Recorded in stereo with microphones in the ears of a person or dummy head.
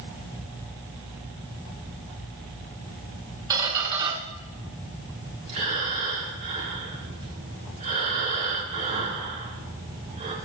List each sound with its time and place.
3.5 s a squeak: 20° right (ahead or behind), 1.7 m
5.5 s breathing: 45° right (ahead or behind), 2.5 m